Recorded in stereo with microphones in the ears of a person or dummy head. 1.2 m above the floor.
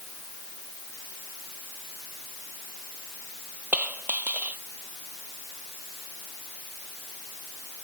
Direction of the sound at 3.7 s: 10° right (ahead or behind).